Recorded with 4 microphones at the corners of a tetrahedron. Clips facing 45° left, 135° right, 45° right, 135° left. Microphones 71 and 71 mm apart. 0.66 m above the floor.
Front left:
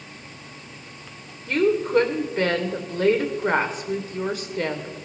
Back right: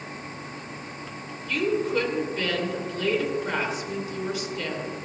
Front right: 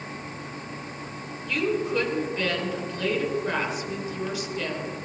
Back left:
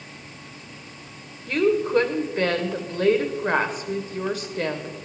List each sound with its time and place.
1.5 s a woman speaking: 90° left, 2.0 m